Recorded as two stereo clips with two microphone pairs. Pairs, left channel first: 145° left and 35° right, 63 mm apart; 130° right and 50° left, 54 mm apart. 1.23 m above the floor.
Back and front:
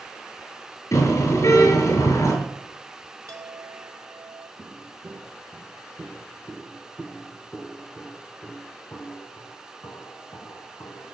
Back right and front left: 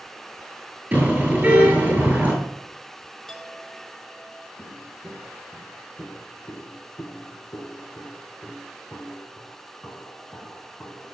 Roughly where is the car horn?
Behind left.